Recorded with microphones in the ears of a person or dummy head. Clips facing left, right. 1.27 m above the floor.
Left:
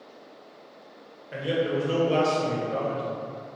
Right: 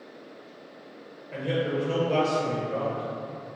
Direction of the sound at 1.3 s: 5° left (ahead or behind).